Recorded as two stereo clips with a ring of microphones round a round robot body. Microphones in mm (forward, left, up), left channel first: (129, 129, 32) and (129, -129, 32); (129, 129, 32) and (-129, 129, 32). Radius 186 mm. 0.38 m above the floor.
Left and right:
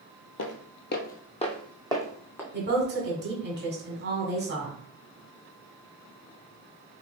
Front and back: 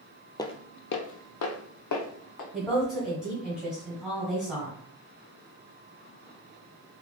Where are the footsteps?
75° left, 0.6 m; by 2.4 s 5° left, 1.4 m.